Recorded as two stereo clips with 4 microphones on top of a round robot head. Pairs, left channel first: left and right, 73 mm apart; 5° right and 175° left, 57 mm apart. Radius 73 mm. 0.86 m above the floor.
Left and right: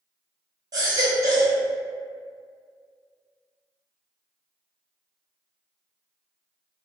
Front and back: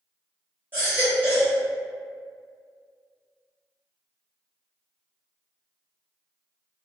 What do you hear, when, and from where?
0.7 s a baby crying: 125° right, 1.0 m